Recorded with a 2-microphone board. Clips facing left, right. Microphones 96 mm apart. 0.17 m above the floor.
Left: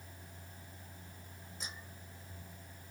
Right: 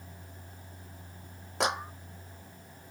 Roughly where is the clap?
Right.